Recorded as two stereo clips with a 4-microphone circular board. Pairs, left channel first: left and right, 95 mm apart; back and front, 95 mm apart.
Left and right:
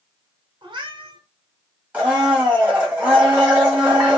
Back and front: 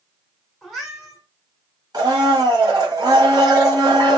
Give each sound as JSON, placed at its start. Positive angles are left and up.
{"t": 0.6, "sound": "a cat meowing", "azimuth_deg": -90, "distance_m": 1.0}
{"t": 1.9, "sound": "a blender", "azimuth_deg": -20, "distance_m": 1.4}